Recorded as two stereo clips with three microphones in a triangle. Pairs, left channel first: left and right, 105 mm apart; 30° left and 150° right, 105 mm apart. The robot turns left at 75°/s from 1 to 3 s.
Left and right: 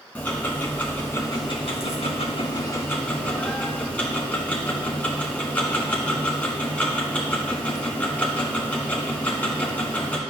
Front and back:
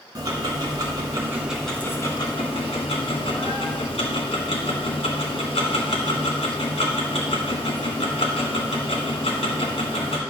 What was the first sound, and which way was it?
Ticking, 165° left.